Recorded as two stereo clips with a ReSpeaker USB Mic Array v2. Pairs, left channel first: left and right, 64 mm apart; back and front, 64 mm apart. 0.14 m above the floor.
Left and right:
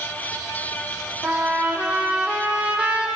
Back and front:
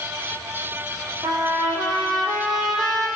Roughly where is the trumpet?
Ahead.